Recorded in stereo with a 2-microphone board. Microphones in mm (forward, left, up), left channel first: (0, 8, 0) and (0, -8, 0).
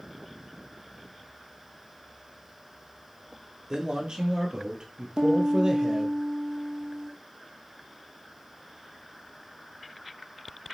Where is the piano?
70° right (ahead or behind), 1.4 m.